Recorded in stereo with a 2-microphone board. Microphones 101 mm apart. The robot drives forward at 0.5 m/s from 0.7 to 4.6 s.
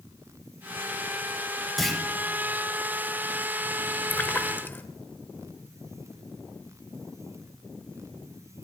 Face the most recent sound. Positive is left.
turn(degrees=20)  # may be behind; listen again after turning